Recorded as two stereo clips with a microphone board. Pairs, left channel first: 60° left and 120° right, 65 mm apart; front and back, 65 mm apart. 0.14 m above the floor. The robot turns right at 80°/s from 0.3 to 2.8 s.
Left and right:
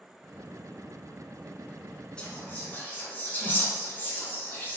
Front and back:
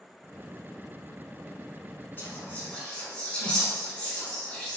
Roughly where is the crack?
No crack in this recording.